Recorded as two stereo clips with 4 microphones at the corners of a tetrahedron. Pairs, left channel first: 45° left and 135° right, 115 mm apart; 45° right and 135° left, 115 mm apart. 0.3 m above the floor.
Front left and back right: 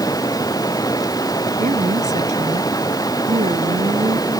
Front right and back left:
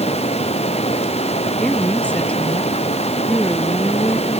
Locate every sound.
0.0 s running water: 15° right
1.6 s a woman speaking: 125° right